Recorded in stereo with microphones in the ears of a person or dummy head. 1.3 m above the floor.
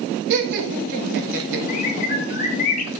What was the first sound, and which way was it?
Laughter, 60° right (ahead or behind).